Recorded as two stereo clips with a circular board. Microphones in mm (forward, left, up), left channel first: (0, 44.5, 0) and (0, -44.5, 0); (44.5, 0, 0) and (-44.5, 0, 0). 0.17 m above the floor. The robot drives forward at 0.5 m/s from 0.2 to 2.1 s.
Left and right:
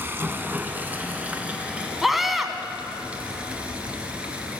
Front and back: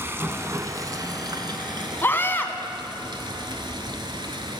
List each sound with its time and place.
0.0 s running water: 135° right, 0.9 m; by 4.6 s 165° right, 1.6 m
2.0 s a scream: 5° right, 1.1 m; by 2.5 s 10° right, 1.1 m